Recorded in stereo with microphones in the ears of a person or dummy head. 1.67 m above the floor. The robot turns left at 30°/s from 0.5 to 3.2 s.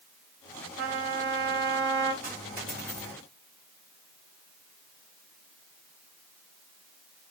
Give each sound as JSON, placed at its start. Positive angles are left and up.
{"t": 0.8, "sound": "a trumpet", "azimuth_deg": -75, "distance_m": 0.8}
{"t": 2.2, "sound": "a dropped coin", "side_deg": 0, "distance_m": 1.8}